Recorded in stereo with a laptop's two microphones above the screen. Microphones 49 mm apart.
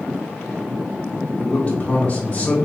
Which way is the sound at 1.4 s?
30° left (ahead or behind).